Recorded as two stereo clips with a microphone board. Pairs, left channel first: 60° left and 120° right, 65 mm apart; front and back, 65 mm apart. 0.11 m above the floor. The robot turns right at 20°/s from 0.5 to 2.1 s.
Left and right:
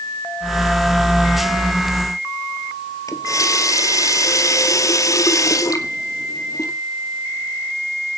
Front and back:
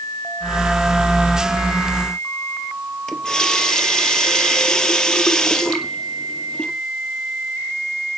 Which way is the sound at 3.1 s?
80° left.